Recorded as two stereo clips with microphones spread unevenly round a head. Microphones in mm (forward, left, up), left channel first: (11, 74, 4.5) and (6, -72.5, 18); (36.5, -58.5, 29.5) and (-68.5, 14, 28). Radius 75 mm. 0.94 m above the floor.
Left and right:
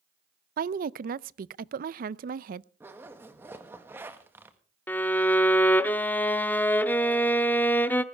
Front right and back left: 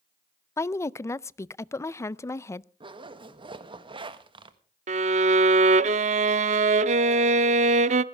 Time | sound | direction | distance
0.6 | a woman speaking | 100° right | 0.5 m
2.8 | a zipper | 170° right | 1.6 m
4.9 | a violin | 170° left | 0.7 m